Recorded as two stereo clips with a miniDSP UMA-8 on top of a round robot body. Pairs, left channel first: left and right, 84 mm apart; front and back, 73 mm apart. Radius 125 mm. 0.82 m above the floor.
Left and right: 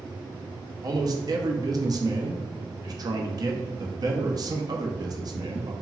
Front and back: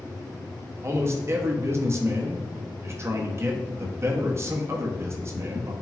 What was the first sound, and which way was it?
A man speaking, 130° right.